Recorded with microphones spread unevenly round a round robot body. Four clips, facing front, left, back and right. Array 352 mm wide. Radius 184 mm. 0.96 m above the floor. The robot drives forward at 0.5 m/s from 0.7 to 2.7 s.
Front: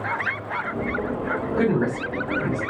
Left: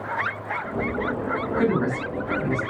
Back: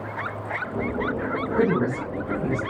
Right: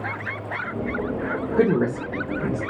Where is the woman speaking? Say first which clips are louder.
Right 4 dB, even; 95° right, 0.9 m; by 2.6 s 125° right, 1.1 m.